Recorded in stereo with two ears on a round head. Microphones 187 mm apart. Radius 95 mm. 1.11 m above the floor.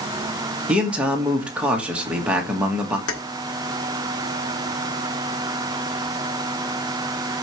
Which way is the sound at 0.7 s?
5° right (ahead or behind).